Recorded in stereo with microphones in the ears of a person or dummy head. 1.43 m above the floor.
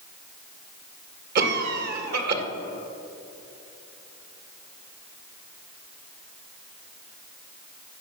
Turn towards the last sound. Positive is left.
turn(degrees=-55)  # may be behind; listen again after turning